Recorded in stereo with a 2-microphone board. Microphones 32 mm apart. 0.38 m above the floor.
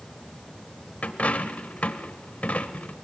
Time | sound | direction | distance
1.0 | a dropped coin | 50° left (ahead or behind) | 0.6 m